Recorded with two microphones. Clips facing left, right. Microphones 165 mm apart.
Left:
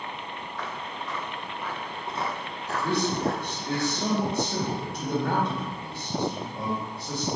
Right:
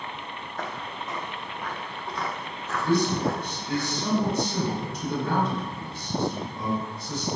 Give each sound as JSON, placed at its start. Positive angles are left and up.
{"t": 0.6, "sound": "footsteps", "side_deg": -45, "distance_m": 1.5}
{"t": 2.8, "sound": "a man speaking", "side_deg": 65, "distance_m": 3.5}